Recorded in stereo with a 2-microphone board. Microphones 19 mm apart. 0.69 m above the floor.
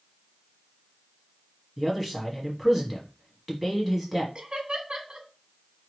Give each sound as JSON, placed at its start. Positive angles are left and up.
{"t": 1.8, "sound": "a man speaking", "side_deg": -5, "distance_m": 1.2}
{"t": 4.3, "sound": "laughter", "side_deg": -55, "distance_m": 1.1}